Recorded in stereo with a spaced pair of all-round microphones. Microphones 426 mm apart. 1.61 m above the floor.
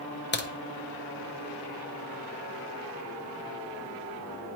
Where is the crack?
25° left (ahead or behind), 0.9 m.